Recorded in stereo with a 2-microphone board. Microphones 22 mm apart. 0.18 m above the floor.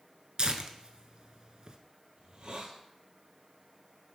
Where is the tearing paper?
50° right (ahead or behind), 0.6 m.